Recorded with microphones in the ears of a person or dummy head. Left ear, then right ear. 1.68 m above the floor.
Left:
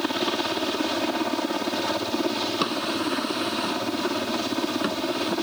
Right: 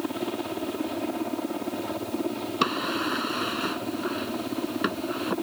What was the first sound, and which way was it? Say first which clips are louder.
A helicopter: left 6 dB; 55° left (ahead or behind).